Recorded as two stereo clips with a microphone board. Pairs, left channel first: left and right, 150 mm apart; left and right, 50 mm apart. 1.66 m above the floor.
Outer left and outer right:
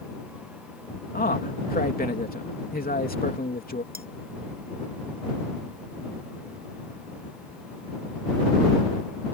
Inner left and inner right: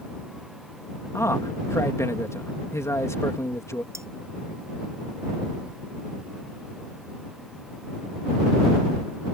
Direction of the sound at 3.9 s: 80° right.